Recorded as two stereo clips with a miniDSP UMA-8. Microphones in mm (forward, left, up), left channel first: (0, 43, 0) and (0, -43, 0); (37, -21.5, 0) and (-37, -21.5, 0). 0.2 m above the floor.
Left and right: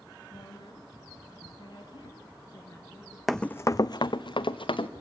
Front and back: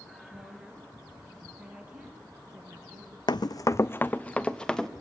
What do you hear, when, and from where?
0.3 s a woman speaking: 105° left, 3 m; by 3.2 s 145° left, 2.5 m
3.3 s running footsteps: straight ahead, 0.5 m; by 4.9 s 85° left, 1.4 m